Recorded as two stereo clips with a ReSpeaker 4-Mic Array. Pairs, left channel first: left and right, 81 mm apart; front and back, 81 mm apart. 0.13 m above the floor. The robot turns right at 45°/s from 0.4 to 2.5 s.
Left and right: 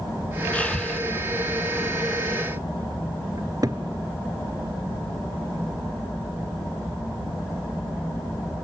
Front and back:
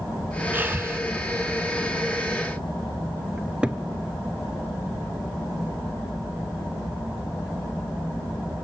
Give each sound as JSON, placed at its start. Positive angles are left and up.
{"t": 0.5, "sound": "breathing", "azimuth_deg": 140, "distance_m": 0.9}
{"t": 3.4, "sound": "a cupboard door", "azimuth_deg": -105, "distance_m": 1.2}